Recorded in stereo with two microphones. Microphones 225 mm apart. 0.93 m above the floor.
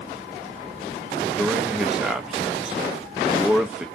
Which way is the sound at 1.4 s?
5° right (ahead or behind).